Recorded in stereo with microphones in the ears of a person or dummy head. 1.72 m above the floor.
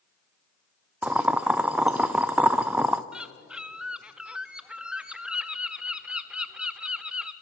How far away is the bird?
About 0.7 m.